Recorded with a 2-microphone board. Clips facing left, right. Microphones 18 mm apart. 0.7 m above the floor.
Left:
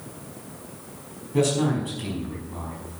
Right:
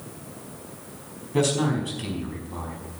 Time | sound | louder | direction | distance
1.3 | a man speaking | left 1 dB | 20° right (ahead or behind) | 4.5 m